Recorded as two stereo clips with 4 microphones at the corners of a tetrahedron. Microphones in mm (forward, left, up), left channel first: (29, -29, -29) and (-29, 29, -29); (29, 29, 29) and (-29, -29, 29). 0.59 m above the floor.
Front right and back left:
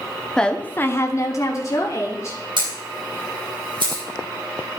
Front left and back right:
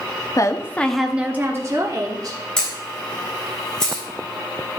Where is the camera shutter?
125° left, 3.5 m.